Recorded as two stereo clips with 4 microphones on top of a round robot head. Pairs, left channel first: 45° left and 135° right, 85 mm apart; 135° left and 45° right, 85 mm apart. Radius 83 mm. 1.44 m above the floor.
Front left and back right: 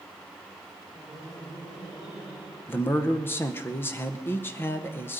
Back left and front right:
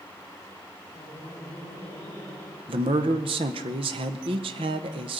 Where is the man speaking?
20° right, 0.7 m.